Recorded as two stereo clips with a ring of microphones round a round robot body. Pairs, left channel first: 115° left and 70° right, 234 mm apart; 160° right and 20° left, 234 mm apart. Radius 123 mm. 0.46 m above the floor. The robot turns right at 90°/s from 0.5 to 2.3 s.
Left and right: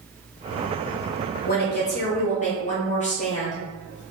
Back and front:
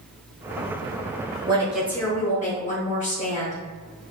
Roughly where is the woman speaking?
Left.